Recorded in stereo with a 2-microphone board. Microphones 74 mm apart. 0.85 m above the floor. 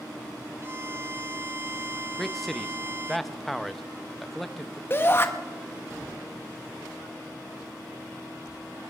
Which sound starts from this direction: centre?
A man speaking, at 2.2 s.